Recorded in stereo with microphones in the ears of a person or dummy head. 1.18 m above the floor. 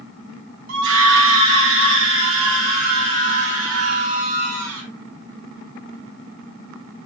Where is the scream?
70° right (ahead or behind), 1.6 m; by 4.9 s 85° right, 4 m.